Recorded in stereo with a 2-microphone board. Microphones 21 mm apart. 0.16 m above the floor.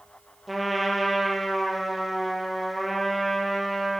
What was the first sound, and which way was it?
A trumpet, 10° right (ahead or behind).